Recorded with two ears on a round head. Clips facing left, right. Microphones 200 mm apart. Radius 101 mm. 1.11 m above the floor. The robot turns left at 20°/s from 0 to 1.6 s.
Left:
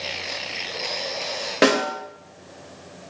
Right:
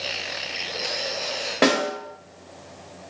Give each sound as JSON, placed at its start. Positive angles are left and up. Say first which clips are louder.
{"t": 1.6, "sound": "a snare drum", "louder": "left 2 dB", "side_deg": 20, "distance_m": 0.9}